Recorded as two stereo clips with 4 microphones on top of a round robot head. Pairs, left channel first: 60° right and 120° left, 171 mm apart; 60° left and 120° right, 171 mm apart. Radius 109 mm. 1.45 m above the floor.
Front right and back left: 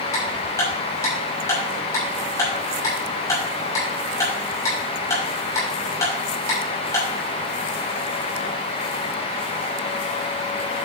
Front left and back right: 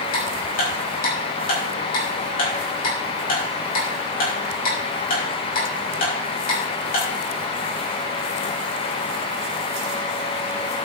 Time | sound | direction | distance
0.1 | ticking | 15° left | 6 m